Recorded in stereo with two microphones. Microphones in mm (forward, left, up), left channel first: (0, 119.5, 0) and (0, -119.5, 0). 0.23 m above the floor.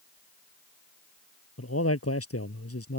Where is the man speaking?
70° left (ahead or behind).